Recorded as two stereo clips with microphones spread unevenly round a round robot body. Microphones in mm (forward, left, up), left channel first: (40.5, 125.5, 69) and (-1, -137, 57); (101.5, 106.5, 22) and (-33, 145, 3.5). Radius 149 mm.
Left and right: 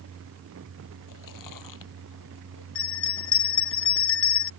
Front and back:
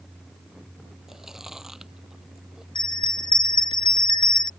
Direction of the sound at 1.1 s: 75° left.